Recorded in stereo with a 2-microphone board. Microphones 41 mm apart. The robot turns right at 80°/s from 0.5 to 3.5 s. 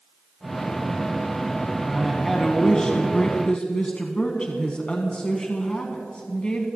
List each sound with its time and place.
1.9 s a woman speaking: 30° right, 1.4 m; by 6.7 s 100° left, 1.4 m